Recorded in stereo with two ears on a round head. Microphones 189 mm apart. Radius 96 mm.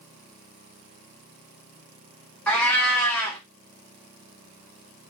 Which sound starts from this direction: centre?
A cat meowing, at 2.5 s.